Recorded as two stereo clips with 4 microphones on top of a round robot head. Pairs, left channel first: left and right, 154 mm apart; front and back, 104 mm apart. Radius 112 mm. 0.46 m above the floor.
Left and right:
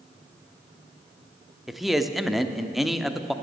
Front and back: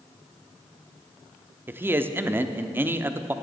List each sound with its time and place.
1.7 s a man speaking: straight behind, 0.8 m